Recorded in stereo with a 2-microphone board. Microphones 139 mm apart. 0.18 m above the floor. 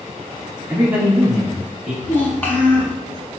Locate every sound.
0.7 s a man speaking: 20° right (ahead or behind), 1.1 m; by 1.9 s 10° right (ahead or behind), 1.4 m
2.0 s a child speaking: 15° left (ahead or behind), 0.7 m